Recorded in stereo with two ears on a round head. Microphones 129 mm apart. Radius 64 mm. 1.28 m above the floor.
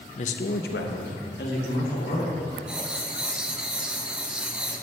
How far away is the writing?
About 0.6 m.